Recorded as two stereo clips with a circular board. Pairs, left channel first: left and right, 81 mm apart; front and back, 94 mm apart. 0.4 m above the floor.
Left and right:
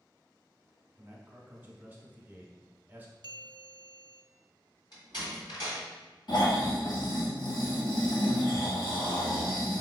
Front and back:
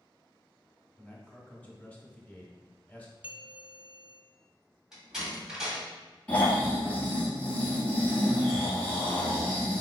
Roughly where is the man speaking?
Ahead right.